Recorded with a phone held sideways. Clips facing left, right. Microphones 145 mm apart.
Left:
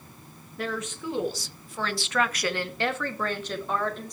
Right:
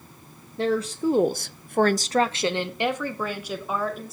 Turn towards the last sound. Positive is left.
turn(degrees=-5)  # may be behind; listen again after turning